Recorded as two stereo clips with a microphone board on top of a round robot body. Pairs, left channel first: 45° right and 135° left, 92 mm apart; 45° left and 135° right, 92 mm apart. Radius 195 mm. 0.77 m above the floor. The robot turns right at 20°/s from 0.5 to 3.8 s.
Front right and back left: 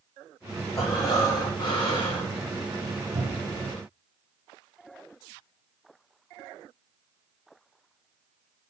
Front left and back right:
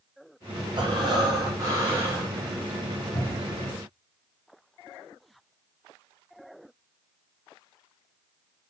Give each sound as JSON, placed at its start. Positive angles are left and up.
{"t": 0.8, "sound": "breathing", "azimuth_deg": -100, "distance_m": 4.0}
{"t": 3.1, "sound": "a cupboard door", "azimuth_deg": 105, "distance_m": 2.5}